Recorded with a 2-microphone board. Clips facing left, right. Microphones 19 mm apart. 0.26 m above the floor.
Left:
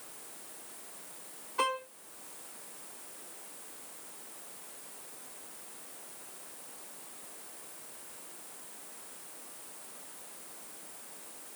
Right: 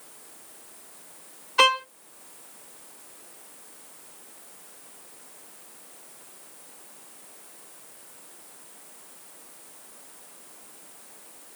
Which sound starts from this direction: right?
A violin, at 1.6 s.